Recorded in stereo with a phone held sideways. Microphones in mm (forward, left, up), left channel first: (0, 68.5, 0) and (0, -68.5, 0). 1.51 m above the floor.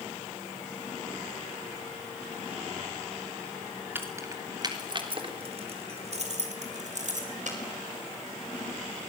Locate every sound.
4.0 s keys jangling: 15° right (ahead or behind), 3 m; by 7.6 s 65° right (ahead or behind), 5 m